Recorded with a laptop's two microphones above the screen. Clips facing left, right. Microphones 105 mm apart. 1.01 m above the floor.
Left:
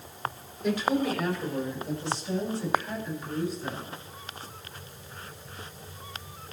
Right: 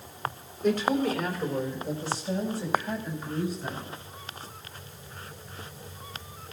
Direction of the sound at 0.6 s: 50° right (ahead or behind).